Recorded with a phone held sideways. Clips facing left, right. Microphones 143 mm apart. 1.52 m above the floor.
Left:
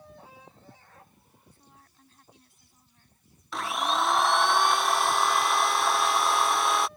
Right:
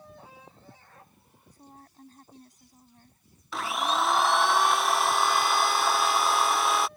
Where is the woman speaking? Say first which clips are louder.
Right 12 dB; 40° right (ahead or behind).